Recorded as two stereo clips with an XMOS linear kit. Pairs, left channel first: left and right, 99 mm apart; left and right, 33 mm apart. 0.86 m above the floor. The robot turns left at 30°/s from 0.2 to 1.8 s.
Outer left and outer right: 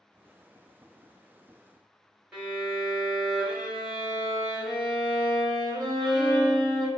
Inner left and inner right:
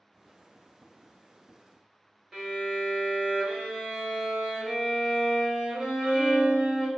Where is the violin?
10° right (ahead or behind), 1.0 m.